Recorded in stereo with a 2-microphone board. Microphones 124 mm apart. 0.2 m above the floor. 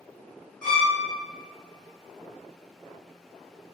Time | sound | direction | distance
0.6 | a violin | 10° left (ahead or behind) | 2.0 m